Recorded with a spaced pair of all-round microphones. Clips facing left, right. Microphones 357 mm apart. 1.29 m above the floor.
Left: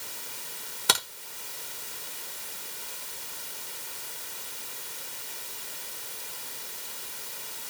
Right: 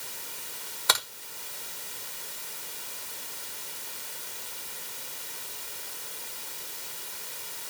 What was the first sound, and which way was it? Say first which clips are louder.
A crack: left 2 dB; 40° left (ahead or behind).